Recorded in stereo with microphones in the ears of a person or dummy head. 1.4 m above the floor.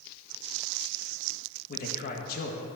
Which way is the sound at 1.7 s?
50° left (ahead or behind).